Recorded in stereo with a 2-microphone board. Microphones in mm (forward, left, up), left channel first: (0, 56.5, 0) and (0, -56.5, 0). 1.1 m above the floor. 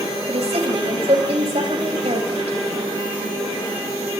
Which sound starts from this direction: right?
A woman speaking, at 0.3 s.